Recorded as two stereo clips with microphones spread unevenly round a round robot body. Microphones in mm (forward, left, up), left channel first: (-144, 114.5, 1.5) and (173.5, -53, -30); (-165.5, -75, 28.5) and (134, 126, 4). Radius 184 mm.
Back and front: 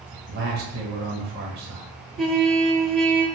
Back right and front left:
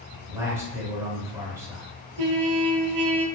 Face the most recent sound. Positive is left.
turn(degrees=60)